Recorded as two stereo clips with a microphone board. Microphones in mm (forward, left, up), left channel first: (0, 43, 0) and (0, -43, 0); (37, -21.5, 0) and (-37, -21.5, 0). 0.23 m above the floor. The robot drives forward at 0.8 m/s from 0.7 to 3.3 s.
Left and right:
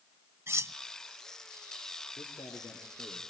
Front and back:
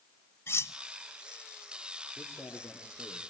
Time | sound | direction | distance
0.5 | cutlery clinking | 40° right | 0.8 m
2.2 | a man speaking | 75° left | 5.5 m